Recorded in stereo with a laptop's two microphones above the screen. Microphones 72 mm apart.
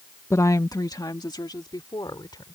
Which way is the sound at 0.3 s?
40° left (ahead or behind).